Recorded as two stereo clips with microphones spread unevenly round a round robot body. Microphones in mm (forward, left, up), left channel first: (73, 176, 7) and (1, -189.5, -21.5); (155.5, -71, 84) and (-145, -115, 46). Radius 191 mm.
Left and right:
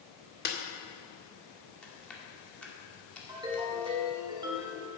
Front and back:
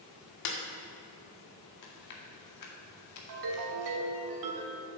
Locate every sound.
0.5 s a snare drum: 10° left, 1.8 m
1.8 s chewing: 10° right, 2 m
3.3 s a ringtone: straight behind, 1.8 m